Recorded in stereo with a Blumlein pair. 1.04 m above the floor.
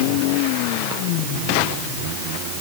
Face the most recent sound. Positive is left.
No sound to turn to.